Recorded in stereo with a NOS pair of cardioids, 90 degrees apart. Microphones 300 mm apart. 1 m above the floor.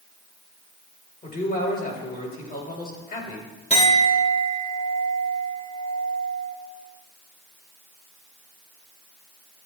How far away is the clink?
About 3 m.